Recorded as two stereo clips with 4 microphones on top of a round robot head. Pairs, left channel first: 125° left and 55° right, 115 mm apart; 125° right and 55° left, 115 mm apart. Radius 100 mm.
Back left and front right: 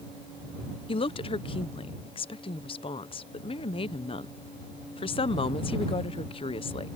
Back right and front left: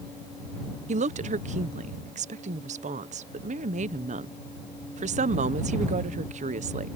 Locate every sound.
0.9 s a woman speaking: 80° left